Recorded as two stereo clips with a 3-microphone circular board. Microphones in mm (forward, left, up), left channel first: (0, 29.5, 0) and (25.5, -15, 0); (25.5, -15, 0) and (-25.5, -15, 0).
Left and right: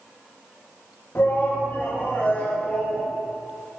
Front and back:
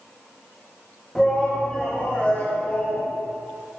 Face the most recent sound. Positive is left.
turn(degrees=55)